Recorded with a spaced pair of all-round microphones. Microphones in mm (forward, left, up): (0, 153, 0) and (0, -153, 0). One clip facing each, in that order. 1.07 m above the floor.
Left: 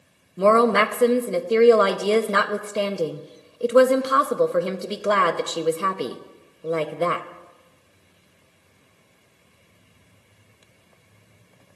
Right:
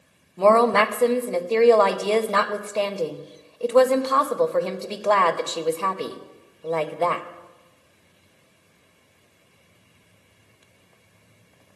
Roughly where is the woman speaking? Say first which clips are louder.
Even; centre.